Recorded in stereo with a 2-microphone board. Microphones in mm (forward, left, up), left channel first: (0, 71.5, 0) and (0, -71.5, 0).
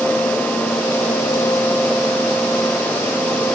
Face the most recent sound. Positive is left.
No sound to turn to.